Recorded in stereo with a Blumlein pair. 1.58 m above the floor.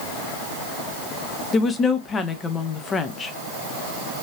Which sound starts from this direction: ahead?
A woman speaking, at 1.5 s.